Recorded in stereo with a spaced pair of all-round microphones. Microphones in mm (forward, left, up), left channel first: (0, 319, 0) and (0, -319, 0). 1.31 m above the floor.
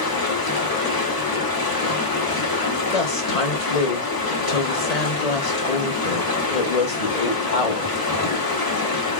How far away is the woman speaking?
About 1.0 m.